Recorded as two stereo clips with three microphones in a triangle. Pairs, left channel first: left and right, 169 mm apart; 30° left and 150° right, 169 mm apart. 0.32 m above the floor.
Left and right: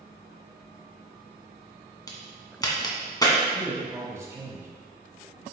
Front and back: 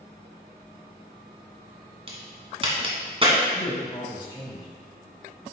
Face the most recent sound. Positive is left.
turn(degrees=-25)